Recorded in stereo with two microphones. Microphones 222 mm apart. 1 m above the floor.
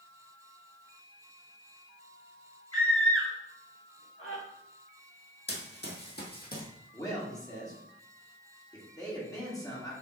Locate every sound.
2.7 s a scream: 80° left, 2 m; by 4.4 s 75° left (ahead or behind), 3 m
5.5 s running footsteps: 55° left (ahead or behind), 1.7 m; by 6.7 s 40° left (ahead or behind), 1.6 m
6.9 s a man speaking: 15° left (ahead or behind), 1.8 m